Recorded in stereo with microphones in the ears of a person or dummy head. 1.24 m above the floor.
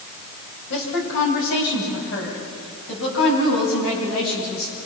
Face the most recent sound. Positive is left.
turn(degrees=75)  # may be behind; listen again after turning